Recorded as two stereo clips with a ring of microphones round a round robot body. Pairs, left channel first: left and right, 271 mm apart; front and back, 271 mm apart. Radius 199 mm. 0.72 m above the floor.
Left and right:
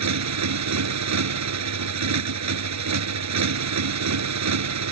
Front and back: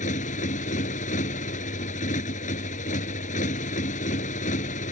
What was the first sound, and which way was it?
A motorcycle, 70° right.